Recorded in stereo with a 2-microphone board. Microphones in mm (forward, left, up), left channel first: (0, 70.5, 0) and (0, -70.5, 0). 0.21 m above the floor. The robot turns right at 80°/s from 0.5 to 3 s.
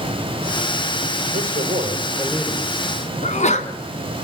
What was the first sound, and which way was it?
A man speaking, 85° right.